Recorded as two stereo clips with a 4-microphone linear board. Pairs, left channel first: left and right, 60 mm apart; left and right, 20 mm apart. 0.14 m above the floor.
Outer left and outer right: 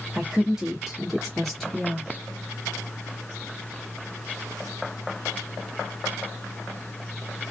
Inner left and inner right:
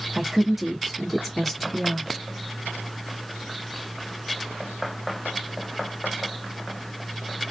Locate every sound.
0.1 s a woman speaking: 15° right (ahead or behind), 1.7 m; by 2.1 s 10° left (ahead or behind), 1.7 m